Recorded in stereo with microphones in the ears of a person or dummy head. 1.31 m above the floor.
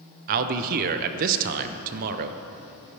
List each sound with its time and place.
0.3 s a man speaking: 45° right (ahead or behind), 0.6 m